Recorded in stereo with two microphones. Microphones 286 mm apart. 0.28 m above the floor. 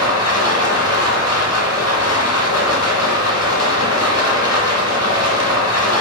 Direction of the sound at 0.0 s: 60° left (ahead or behind).